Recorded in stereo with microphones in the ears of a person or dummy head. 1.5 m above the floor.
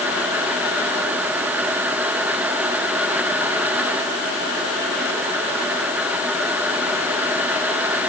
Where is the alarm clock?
No alarm clock in this recording.